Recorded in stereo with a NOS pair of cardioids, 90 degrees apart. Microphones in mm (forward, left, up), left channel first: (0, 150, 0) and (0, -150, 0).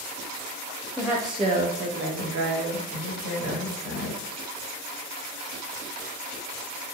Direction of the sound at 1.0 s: Straight ahead.